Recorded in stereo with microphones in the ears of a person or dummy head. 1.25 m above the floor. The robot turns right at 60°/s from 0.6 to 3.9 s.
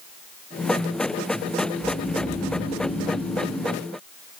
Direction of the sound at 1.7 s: 5° left.